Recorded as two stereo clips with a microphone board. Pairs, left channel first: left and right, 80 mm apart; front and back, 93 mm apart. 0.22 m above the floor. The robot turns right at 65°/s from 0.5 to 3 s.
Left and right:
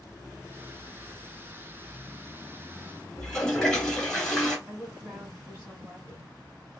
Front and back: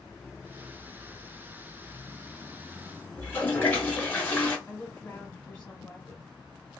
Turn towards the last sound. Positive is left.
turn(degrees=-60)